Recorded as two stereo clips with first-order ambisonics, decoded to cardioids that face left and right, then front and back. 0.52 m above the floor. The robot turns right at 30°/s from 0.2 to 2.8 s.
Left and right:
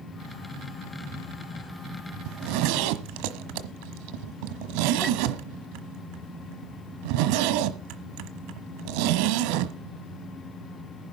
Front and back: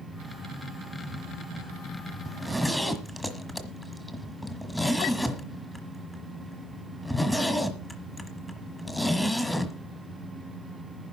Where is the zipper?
100° right, 1.2 m; by 9.8 s 85° right, 1.2 m.